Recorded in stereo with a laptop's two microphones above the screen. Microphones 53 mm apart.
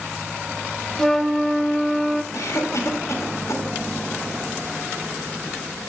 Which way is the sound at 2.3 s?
70° left (ahead or behind).